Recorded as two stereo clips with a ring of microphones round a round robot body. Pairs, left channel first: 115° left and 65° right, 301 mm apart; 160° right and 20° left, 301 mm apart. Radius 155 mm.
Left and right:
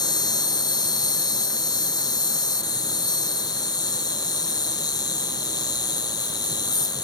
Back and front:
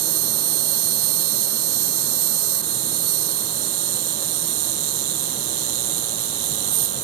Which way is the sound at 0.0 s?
35° left.